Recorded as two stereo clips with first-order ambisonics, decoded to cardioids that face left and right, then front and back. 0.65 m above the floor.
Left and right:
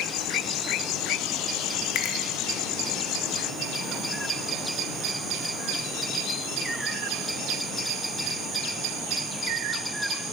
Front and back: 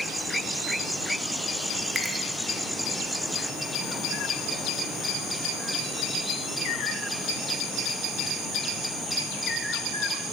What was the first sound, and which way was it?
A finger snap, 105° left.